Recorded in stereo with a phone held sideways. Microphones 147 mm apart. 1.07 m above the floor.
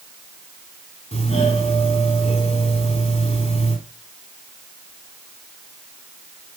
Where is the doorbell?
50° left (ahead or behind), 4.5 m.